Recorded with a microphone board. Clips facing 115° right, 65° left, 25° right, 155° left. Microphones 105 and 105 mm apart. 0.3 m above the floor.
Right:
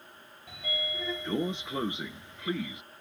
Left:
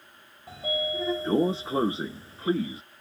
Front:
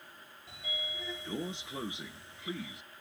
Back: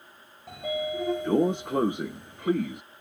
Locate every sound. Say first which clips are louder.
0.5 s a sliding door: left 8 dB, back 15 dB; 125° left